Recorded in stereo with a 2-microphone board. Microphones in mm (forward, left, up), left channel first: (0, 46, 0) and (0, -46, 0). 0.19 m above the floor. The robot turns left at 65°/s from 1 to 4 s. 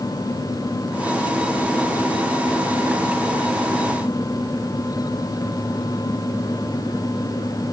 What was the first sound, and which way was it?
Only background noise.